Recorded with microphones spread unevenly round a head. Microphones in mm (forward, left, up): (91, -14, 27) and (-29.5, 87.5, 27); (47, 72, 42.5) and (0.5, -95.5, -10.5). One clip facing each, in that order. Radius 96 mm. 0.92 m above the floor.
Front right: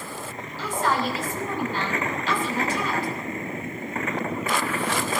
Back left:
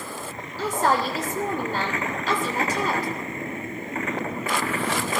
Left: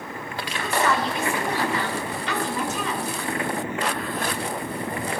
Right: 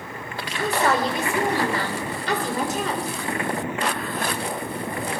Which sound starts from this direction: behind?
A woman speaking, at 0.6 s.